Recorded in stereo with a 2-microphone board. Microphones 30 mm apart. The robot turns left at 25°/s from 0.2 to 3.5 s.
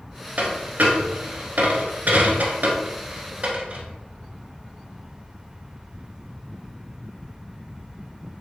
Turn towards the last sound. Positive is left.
turn(degrees=-50)  # may be behind; listen again after turning